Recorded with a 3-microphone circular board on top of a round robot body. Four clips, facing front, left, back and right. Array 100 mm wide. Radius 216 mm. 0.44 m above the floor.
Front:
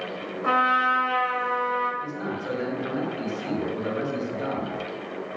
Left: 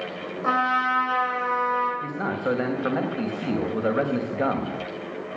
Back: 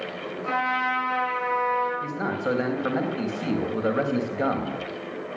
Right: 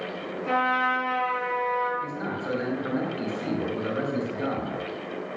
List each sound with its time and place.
0.4 s a trumpet: 65° left, 7 m
2.0 s a man speaking: 120° left, 3.5 m